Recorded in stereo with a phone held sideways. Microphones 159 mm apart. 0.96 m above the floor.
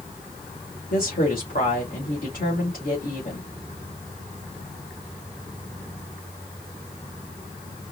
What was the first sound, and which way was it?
A woman speaking, 70° left (ahead or behind).